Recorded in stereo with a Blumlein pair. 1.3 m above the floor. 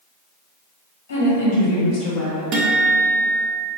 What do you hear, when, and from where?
1.1 s a woman speaking: 55° left, 1.1 m; by 2.4 s 5° left, 0.8 m
2.5 s a guitar: 30° right, 0.6 m